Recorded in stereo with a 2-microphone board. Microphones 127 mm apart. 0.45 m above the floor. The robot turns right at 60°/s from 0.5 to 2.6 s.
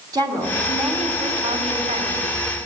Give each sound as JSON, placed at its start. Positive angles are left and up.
{"t": 0.1, "sound": "a woman speaking", "azimuth_deg": -145, "distance_m": 3.5}